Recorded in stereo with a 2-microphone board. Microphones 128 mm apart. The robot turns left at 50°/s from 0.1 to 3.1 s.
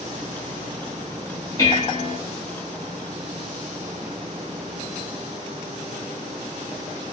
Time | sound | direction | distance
1.6 | dishes clattering | 25° left (ahead or behind) | 1.5 m